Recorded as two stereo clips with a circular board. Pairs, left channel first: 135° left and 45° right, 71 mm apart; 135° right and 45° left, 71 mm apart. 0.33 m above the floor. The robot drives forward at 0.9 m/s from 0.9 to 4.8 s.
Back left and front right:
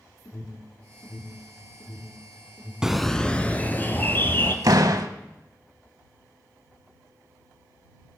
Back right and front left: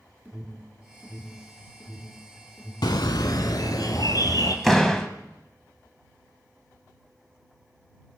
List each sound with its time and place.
0.2 s an alarm: 110° left, 3.5 m; by 2.7 s 130° left, 4 m
2.8 s a bird: 125° right, 0.5 m; by 4.5 s 165° right, 1.9 m
4.6 s a door slam: 50° right, 1.2 m; by 5.1 s 55° right, 1.1 m